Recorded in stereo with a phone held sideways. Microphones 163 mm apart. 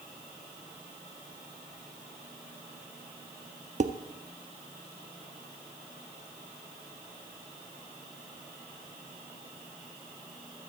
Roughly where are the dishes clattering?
Right.